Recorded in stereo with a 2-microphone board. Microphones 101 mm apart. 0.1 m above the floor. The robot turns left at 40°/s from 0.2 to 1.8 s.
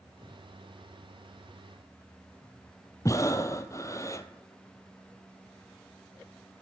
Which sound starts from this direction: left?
Breathing, at 3.0 s.